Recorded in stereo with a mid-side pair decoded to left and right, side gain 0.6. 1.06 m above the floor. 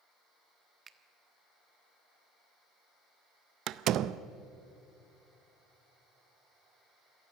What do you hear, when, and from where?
0.9 s a finger snap: 30° right, 1.3 m
3.7 s a door slam: 60° right, 0.6 m